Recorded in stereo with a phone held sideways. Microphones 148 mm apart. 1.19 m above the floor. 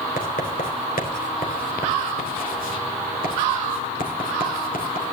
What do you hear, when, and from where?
0.2 s writing: 80° left, 3 m